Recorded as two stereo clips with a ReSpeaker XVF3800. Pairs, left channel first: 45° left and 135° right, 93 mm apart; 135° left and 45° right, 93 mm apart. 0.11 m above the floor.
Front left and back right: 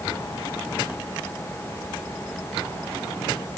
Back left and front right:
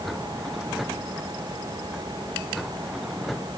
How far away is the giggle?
I don't hear a giggle.